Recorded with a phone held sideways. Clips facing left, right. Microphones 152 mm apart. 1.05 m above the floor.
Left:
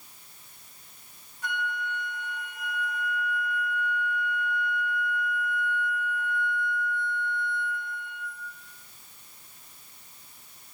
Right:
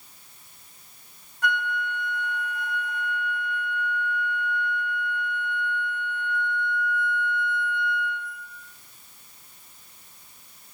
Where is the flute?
80° right, 2.5 m.